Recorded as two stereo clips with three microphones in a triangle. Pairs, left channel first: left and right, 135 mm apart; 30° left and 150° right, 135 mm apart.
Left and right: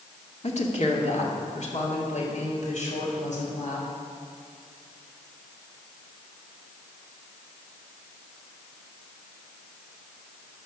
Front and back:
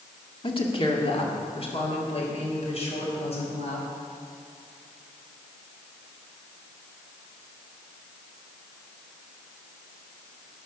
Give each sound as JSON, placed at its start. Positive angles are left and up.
{"t": 0.4, "sound": "a woman speaking", "azimuth_deg": 70, "distance_m": 1.9}